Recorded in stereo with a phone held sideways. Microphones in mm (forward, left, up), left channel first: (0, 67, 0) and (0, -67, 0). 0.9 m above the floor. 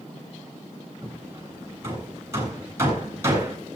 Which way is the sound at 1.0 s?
20° right (ahead or behind).